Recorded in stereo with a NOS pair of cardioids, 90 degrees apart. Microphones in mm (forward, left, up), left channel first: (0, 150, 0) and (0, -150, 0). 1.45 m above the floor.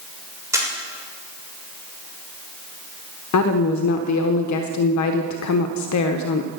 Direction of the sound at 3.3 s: 70° left.